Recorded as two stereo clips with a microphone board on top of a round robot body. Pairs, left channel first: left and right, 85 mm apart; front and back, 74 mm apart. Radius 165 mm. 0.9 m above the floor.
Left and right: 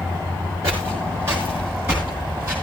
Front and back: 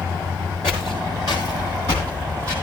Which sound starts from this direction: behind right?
Footsteps, at 0.6 s.